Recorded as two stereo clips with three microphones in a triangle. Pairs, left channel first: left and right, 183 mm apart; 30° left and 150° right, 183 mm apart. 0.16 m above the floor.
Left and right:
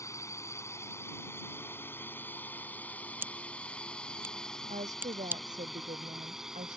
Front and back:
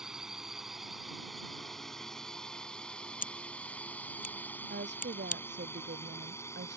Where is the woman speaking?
140° right.